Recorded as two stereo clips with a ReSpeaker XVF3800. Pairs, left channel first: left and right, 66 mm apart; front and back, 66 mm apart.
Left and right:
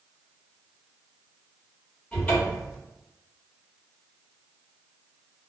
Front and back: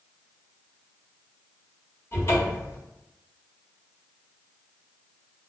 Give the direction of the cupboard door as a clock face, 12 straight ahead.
11 o'clock.